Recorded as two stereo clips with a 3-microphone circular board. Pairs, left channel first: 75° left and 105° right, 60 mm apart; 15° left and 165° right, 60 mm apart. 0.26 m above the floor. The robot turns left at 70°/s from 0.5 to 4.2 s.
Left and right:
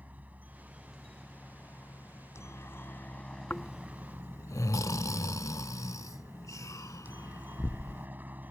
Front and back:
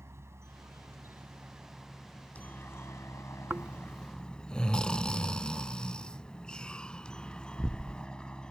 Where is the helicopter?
155° right; by 8.5 s 55° right.